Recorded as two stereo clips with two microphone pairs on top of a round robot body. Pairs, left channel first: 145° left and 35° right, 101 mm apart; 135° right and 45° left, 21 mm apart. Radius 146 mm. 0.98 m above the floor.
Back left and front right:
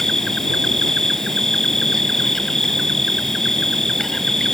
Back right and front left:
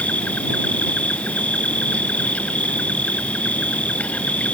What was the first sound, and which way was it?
An insect, 130° right.